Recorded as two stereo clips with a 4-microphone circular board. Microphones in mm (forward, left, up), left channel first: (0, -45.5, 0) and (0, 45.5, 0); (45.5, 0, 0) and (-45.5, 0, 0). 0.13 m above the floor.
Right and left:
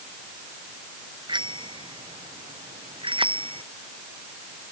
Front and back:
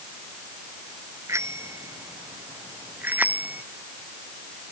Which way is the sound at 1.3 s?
120° left.